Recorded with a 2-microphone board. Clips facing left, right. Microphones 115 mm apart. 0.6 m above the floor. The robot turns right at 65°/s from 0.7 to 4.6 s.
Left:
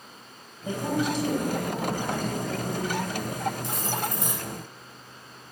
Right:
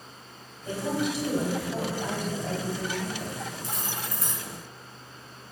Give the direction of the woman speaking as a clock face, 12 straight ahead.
7 o'clock.